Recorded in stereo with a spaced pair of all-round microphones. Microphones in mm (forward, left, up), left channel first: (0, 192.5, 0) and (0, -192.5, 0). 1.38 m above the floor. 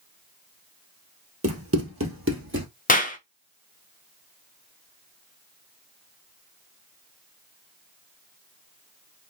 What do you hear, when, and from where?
1.4 s running footsteps: 35° right (ahead or behind), 1.6 m; by 2.7 s 30° right (ahead or behind), 1.8 m
2.9 s a clap: 20° left (ahead or behind), 0.7 m